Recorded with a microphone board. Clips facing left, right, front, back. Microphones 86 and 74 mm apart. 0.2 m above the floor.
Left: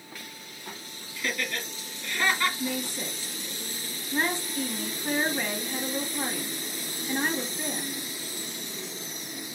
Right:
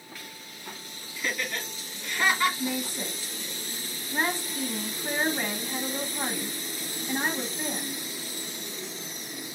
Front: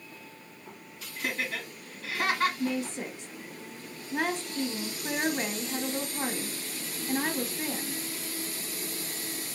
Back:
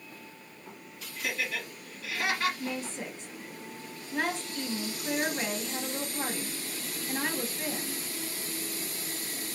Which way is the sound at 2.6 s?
40° right.